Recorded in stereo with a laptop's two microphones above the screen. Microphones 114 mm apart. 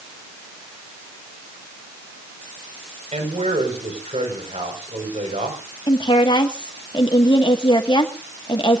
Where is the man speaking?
75° right (ahead or behind), 5.5 m.